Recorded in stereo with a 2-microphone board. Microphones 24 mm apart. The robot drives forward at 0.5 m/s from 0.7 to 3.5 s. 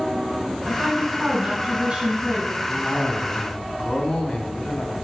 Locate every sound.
0.7 s a woman speaking: 35° right (ahead or behind), 3.5 m; by 2.6 s 30° right (ahead or behind), 4.5 m
2.7 s a cough: 45° left (ahead or behind), 2 m; by 4.9 s 50° left (ahead or behind), 1.9 m